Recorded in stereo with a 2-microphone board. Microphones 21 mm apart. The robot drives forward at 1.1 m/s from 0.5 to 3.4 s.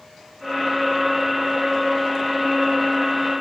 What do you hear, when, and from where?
Only background noise.